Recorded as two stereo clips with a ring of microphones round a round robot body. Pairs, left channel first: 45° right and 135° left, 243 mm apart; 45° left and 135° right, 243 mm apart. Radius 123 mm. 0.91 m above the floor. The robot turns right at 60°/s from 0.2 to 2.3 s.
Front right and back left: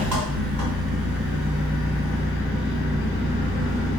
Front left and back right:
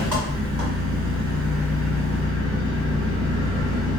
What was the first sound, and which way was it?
An engine running, 145° left.